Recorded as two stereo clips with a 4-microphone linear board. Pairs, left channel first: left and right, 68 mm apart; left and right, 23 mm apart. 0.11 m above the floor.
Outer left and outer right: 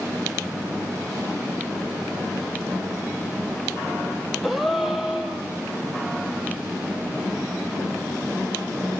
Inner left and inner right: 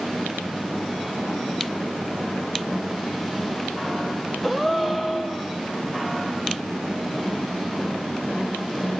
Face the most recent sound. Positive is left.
turn(degrees=-5)  # may be behind; listen again after turning